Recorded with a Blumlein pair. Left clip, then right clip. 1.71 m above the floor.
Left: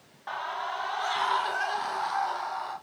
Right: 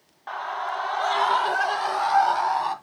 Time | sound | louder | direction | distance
0.3 | a scream | right 4 dB | 10° right | 0.5 m